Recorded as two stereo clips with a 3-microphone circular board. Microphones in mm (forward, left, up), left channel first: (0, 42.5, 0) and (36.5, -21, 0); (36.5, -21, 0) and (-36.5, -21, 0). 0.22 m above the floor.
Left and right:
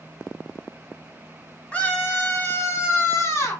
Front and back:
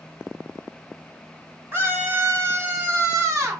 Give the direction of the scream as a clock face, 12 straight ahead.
6 o'clock.